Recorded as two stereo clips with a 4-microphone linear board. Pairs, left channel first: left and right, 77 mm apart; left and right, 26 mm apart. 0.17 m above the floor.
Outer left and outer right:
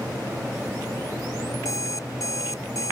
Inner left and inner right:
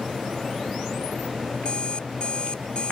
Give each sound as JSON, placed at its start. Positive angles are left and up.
{"t": 1.6, "sound": "an alarm clock", "side_deg": 45}